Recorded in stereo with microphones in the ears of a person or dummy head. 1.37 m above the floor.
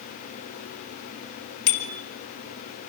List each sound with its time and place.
1.7 s a bicycle bell: 75° left (ahead or behind), 4 m